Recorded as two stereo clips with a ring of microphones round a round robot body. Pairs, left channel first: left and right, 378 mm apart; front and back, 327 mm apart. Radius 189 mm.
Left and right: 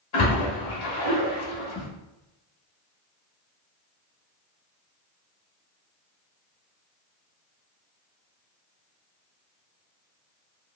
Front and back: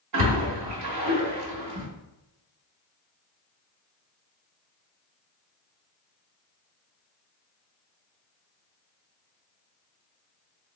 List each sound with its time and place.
0.1 s a splash: 145° left, 1.7 m